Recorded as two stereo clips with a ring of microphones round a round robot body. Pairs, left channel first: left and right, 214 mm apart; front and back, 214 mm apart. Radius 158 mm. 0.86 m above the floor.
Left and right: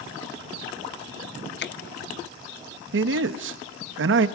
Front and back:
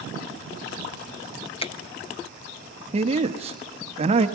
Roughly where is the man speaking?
Behind right.